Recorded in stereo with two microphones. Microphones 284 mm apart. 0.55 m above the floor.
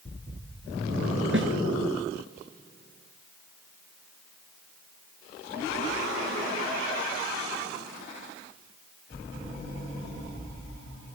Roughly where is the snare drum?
Right.